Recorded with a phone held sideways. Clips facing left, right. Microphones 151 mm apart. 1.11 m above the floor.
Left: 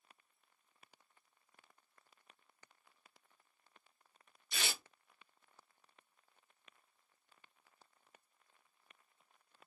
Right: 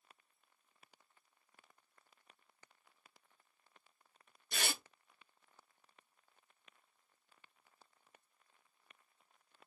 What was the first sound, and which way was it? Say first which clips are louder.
Tearing paper: right 2 dB; 55° right (ahead or behind).